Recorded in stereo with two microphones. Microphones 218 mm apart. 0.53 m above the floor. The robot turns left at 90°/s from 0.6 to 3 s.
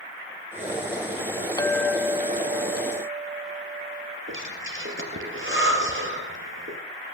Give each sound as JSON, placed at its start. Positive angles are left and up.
{"t": 1.6, "sound": "a clink", "azimuth_deg": 25, "distance_m": 0.8}
{"t": 4.3, "sound": "breathing", "side_deg": -60, "distance_m": 3.0}